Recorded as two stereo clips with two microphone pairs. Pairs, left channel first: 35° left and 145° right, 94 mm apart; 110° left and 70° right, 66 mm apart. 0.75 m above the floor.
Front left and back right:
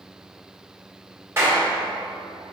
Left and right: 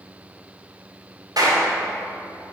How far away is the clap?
About 3 m.